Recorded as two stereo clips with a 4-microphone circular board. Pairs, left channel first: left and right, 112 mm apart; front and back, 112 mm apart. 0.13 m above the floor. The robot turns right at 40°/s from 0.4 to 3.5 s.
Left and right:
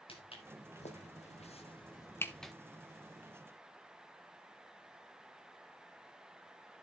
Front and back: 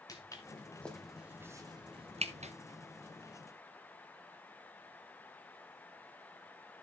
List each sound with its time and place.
0.1 s footsteps: 55° left, 3 m; by 2.5 s 175° right, 0.9 m